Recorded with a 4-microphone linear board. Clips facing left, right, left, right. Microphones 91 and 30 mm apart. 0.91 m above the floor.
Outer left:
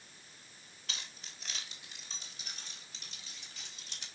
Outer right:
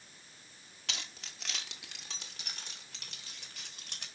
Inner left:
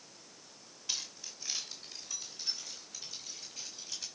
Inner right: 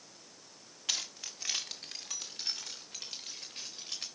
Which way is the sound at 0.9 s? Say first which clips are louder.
Outer right 3 dB, inner right 4 dB; 80° right.